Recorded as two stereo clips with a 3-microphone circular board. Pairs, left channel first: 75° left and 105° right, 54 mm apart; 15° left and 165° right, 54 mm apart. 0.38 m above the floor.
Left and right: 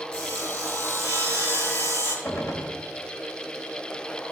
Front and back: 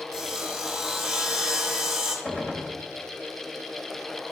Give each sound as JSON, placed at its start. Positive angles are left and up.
{"t": 0.1, "sound": "sawing", "azimuth_deg": 110, "distance_m": 2.5}
{"t": 2.2, "sound": "a gunshot", "azimuth_deg": 75, "distance_m": 1.1}